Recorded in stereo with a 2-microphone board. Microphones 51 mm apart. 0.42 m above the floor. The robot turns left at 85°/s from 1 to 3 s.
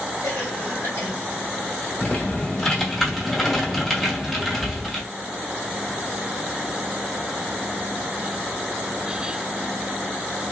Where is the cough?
70° left (ahead or behind), 2.5 m; by 1.1 s 65° left (ahead or behind), 2.5 m.